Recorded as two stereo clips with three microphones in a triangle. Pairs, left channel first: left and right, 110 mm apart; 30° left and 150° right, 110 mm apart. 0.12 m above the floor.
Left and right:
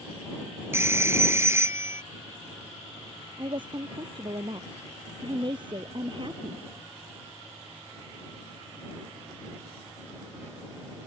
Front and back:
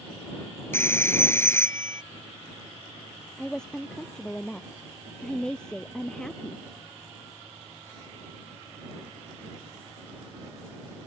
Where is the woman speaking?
50° right.